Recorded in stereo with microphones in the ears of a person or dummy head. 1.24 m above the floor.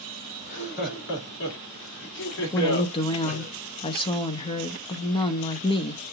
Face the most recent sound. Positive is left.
turn(degrees=30)  # may be behind; listen again after turning